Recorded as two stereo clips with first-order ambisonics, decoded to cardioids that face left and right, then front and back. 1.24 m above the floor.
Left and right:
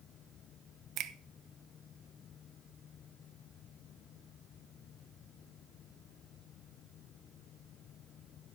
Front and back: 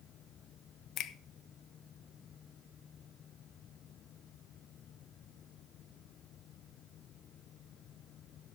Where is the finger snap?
50° right, 0.7 m.